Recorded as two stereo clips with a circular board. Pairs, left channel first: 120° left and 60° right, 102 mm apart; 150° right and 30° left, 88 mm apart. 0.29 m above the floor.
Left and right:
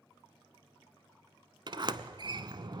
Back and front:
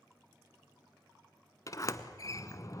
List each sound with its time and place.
1.7 s a sliding door: 100° right, 0.8 m